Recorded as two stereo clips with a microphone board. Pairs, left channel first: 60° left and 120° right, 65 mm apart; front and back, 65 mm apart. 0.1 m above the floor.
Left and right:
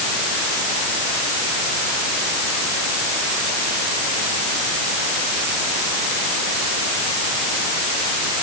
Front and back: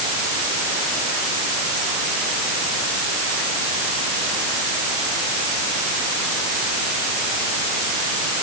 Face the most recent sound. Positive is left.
No sound to turn to.